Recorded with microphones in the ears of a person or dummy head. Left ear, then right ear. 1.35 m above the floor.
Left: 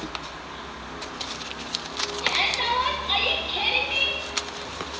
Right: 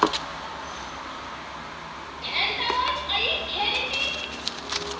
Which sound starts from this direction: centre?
A shout, at 2.2 s.